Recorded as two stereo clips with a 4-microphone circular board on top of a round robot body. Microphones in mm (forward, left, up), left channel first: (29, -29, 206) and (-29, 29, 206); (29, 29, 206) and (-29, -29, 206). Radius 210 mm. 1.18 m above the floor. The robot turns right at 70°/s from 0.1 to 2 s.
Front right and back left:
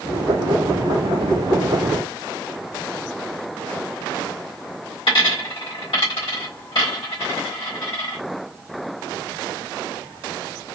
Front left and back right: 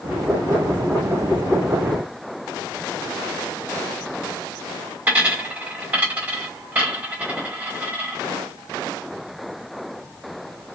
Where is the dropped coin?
65° right, 1.7 m.